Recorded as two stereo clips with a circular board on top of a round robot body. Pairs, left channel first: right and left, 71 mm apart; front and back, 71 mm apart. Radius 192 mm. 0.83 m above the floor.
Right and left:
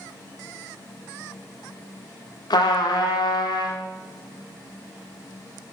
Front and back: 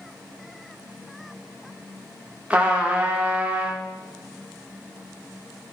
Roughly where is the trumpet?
Right.